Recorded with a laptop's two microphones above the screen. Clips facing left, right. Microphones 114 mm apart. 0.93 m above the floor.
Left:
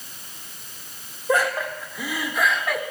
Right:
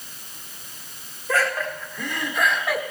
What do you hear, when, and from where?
1.3 s laughter: 20° left (ahead or behind), 2 m; by 2.8 s 5° right (ahead or behind), 2.5 m